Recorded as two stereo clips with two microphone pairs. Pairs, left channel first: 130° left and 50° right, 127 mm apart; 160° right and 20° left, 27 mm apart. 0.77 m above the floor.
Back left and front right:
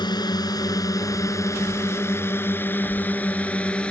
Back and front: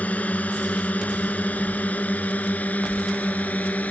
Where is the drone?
175° right; by 3.9 s 150° right.